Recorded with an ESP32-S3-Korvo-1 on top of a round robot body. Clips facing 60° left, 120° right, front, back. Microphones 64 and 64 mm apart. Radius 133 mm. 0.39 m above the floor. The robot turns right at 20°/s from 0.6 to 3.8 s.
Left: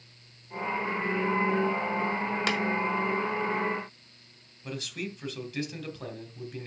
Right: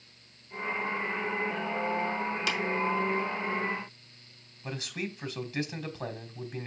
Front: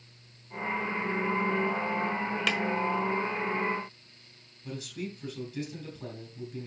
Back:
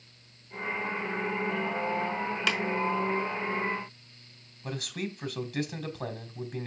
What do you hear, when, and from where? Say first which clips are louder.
2.5 s tapping: left 4 dB, back 1 dB; 90° left, 1.6 m; by 2.6 s 95° left, 1.6 m
4.6 s a man speaking: even, back 2 dB; 175° left, 2.5 m